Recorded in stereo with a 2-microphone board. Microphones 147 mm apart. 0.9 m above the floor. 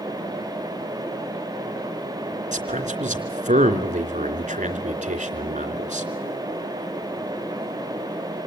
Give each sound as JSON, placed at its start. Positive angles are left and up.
{"t": 2.5, "sound": "a man speaking", "side_deg": -55, "distance_m": 3.0}